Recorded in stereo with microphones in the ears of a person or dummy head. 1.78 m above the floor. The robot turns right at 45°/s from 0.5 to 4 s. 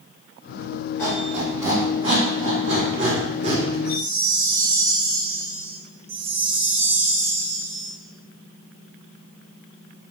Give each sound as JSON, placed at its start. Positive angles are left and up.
{"t": 1.0, "sound": "a squeak", "side_deg": 10, "distance_m": 1.9}
{"t": 3.9, "sound": "a chime", "side_deg": -15, "distance_m": 0.6}
{"t": 6.1, "sound": "a chime", "side_deg": -75, "distance_m": 1.5}